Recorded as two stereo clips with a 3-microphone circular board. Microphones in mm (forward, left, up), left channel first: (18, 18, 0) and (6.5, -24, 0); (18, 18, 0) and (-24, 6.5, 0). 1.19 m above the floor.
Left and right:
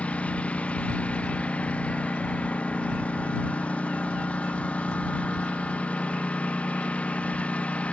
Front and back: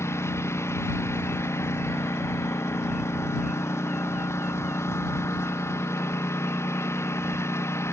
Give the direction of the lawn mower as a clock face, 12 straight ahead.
12 o'clock.